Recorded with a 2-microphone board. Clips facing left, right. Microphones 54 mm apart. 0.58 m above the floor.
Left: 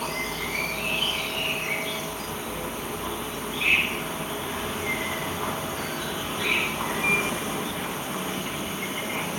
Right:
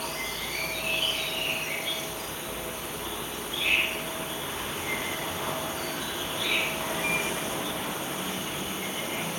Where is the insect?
50° left (ahead or behind), 0.7 m.